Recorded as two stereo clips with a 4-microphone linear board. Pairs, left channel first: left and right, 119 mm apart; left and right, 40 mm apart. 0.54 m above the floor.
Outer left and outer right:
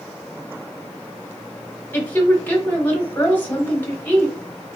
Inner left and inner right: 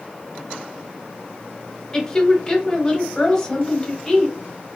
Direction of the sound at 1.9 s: 15° left (ahead or behind).